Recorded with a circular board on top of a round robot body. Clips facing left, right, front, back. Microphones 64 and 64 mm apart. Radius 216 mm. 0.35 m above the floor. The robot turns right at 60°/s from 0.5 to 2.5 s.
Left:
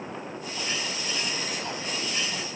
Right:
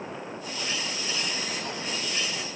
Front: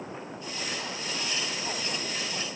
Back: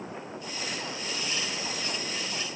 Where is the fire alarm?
No fire alarm in this recording.